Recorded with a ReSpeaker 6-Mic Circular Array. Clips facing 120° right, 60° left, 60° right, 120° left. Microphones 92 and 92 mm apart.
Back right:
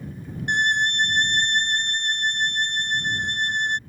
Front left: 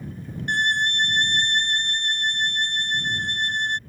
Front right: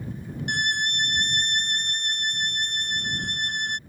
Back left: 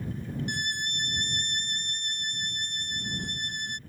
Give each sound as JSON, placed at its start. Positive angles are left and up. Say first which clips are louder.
{"t": 0.5, "sound": "a violin", "louder": "back right 1 dB, front right 7 dB", "azimuth_deg": -50}